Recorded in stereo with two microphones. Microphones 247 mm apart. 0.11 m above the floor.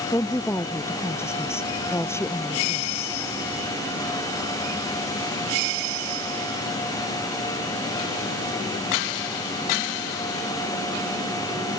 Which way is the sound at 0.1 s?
10° left (ahead or behind).